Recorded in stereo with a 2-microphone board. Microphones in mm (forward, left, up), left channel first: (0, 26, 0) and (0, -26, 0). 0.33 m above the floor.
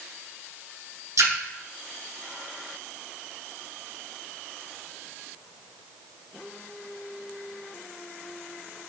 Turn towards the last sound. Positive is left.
turn(degrees=-70)  # may be behind; listen again after turning